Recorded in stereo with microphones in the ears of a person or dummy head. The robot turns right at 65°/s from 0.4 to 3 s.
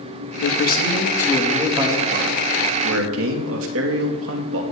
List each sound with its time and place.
0.4 s a man speaking: 105° left, 2 m; by 4.6 s 85° right, 2 m